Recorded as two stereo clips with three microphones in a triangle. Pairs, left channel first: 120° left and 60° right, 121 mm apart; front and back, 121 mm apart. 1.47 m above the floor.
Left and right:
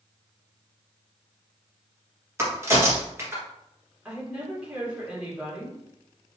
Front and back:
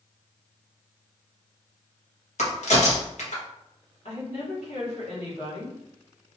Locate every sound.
2.4 s a crack: 5° left, 1.1 m
4.0 s a woman speaking: 20° left, 2 m